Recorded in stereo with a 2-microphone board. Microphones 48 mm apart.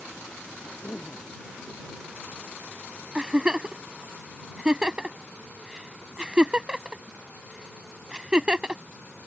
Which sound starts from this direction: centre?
A giggle, at 3.1 s.